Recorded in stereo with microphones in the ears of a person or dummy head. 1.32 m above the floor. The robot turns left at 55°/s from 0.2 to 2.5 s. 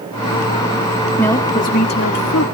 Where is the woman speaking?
175° left, 2.0 m; by 2.5 s 105° left, 2.0 m.